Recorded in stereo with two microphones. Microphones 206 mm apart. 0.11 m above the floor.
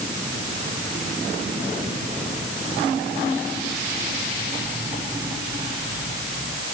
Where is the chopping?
No chopping in this recording.